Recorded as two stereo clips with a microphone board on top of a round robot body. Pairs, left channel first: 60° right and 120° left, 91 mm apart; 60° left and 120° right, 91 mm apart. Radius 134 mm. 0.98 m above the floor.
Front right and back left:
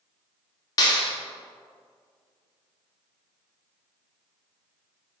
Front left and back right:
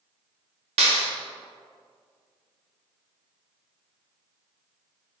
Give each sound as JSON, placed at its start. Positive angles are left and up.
{"t": 0.8, "sound": "a clap", "azimuth_deg": -110, "distance_m": 2.5}